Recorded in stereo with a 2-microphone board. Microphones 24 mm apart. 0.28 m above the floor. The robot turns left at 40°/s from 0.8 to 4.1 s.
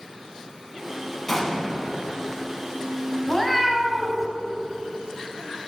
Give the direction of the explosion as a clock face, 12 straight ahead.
11 o'clock.